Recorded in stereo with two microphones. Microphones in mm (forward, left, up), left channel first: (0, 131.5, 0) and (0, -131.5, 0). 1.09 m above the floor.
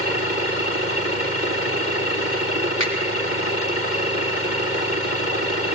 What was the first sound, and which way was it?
A finger snap, 80° left.